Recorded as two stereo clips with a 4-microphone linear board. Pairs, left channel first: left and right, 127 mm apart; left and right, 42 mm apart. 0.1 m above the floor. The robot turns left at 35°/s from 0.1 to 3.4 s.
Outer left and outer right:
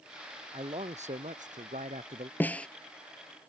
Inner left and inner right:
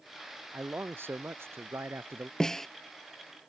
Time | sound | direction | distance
0.5 | a man speaking | 55° right | ?
2.4 | a snare drum | 15° left (ahead or behind) | ?